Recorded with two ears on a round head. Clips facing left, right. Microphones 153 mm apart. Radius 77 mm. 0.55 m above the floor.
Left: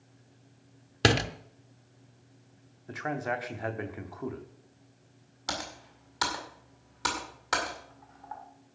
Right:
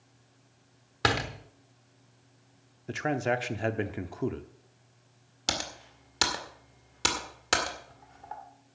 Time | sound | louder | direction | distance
1.0 | a door slam | left 4 dB | 30° left (ahead or behind) | 0.8 m
2.9 | a man speaking | right 4 dB | 30° right (ahead or behind) | 0.9 m
5.5 | typing on a keyboard | right 2 dB | 30° right (ahead or behind) | 1.9 m